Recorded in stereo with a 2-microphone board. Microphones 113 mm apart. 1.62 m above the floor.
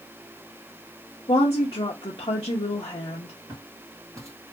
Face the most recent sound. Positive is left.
turn(degrees=-20)  # may be behind; listen again after turning